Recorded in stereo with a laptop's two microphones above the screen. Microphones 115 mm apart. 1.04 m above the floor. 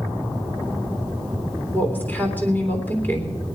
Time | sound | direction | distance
1.7 | a woman speaking | 15° left (ahead or behind) | 3.5 m